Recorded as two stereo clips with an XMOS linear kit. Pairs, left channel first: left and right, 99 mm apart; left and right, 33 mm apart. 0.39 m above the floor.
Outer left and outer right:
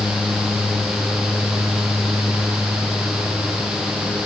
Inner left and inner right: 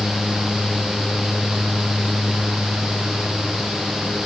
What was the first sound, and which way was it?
Only background noise.